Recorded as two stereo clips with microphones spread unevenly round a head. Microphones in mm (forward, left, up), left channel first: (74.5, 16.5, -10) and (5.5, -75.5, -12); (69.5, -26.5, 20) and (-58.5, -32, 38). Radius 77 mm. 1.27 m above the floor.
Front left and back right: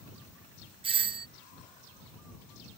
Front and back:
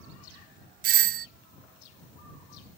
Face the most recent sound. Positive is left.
turn(degrees=180)